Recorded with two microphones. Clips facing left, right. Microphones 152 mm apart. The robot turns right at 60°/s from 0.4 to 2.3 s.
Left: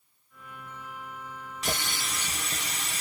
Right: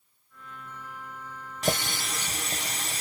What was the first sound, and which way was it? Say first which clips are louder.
A running tap: right 6 dB; 100° right.